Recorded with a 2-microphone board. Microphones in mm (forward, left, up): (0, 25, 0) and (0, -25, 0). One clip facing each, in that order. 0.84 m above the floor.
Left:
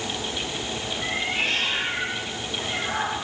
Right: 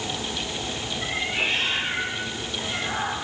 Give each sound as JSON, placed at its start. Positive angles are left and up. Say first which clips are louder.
{"t": 1.0, "sound": "a cat meowing", "louder": "even", "side_deg": -20, "distance_m": 5.5}